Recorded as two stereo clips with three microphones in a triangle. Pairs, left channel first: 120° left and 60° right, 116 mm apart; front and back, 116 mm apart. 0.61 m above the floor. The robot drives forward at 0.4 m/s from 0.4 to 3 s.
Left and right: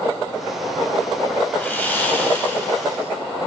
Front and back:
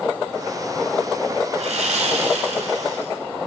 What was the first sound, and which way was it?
Sawing, 165° right.